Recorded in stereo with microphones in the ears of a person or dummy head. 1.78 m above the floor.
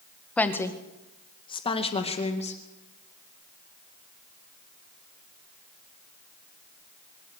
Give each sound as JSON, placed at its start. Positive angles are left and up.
{"t": 0.4, "sound": "a woman speaking", "side_deg": 0, "distance_m": 1.7}